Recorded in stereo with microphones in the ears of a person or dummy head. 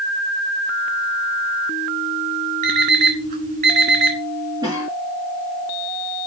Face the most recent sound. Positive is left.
turn(degrees=-20)  # may be behind; listen again after turning